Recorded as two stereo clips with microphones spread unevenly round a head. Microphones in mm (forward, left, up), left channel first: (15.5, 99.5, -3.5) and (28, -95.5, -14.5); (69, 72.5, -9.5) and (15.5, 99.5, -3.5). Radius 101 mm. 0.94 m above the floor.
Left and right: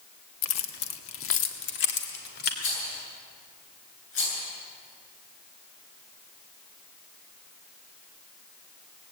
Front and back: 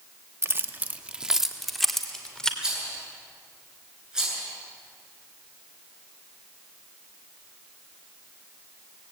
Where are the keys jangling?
105° left, 1.3 m; by 2.5 s 50° left, 2.5 m.